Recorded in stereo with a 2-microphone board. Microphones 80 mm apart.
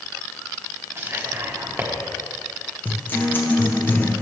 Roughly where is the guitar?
Left.